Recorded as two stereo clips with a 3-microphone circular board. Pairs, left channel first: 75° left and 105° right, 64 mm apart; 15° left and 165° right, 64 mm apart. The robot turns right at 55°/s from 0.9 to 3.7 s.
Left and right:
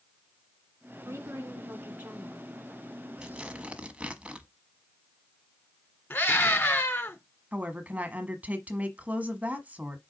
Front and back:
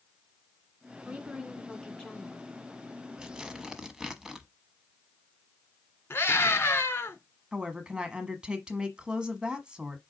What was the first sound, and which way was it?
A woman speaking, 105° right.